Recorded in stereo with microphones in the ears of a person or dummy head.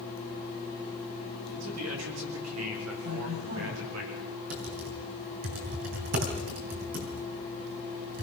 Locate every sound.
1.5 s a man speaking: 80° right, 4 m; by 4.0 s 90° right, 7.5 m
3.0 s a woman speaking: 55° right (ahead or behind), 9.5 m
4.5 s typing on a keyboard: 60° right (ahead or behind), 3.5 m